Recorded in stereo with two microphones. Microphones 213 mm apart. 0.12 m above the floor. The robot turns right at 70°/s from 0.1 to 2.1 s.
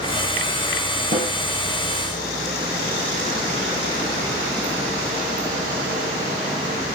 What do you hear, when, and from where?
1.1 s a snare drum: 45° right (ahead or behind), 5.5 m; by 1.3 s 35° right (ahead or behind), 5.5 m